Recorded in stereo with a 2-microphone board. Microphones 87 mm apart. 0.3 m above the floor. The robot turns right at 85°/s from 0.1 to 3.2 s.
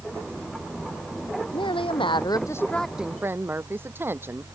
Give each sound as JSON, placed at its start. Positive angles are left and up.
{"t": 1.5, "sound": "a woman speaking", "azimuth_deg": 65}